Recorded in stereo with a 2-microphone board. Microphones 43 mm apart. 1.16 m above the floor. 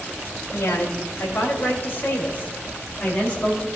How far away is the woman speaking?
About 5.5 m.